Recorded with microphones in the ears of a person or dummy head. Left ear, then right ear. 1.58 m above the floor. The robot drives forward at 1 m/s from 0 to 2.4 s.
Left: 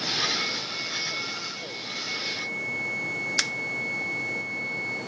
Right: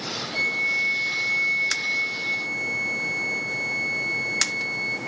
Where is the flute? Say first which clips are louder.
Right 5 dB; 55° right (ahead or behind), 2 m; by 5.0 s 50° right (ahead or behind), 2.5 m.